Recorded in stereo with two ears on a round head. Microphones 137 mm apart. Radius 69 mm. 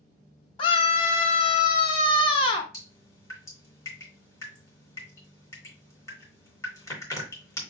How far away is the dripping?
About 2.5 m.